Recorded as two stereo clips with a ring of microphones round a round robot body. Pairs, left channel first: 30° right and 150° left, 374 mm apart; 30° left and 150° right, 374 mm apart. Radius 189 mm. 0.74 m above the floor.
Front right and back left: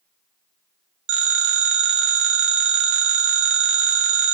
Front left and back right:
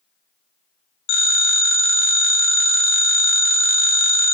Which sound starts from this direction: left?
A phone ringing, at 1.1 s.